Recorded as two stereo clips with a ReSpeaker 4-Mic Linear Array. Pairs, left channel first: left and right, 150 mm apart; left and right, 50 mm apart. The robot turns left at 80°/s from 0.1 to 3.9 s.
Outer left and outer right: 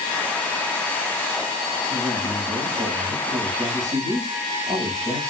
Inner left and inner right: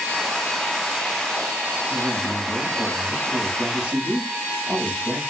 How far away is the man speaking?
About 1.4 m.